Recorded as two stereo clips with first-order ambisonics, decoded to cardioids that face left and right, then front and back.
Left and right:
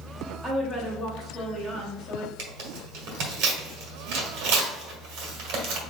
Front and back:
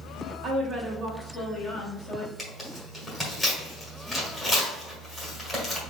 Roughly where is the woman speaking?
Behind right.